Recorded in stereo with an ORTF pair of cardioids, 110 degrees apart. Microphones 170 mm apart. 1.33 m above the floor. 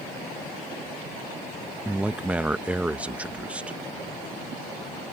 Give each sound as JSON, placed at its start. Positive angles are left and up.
{"t": 1.9, "sound": "a man speaking", "azimuth_deg": -10}